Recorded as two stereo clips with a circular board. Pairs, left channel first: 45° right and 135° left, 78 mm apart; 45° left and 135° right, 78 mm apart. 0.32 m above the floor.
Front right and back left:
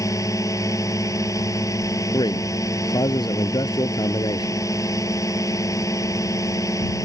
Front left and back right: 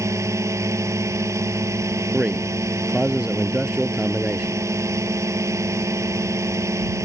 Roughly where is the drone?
Right.